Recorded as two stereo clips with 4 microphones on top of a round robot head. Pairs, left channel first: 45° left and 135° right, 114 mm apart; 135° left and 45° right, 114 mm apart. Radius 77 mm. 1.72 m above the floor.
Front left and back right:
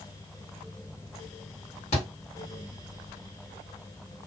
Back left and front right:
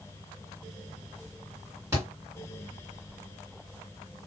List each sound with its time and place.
1.9 s a thud: 20° left, 2 m